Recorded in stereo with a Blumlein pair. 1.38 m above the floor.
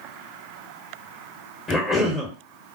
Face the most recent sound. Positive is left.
turn(degrees=20)